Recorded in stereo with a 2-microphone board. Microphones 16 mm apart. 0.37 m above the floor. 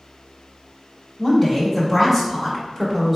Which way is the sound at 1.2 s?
5° left (ahead or behind).